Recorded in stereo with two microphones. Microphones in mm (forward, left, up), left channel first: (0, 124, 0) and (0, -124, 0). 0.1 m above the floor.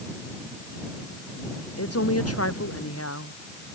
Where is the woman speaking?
70° left (ahead or behind).